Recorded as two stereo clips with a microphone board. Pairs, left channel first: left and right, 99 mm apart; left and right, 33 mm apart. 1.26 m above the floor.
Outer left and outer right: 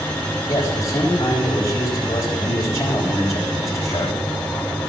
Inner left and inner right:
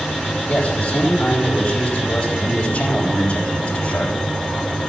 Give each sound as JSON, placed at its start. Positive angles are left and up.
{"t": 0.5, "sound": "a man speaking", "side_deg": 35, "distance_m": 3.5}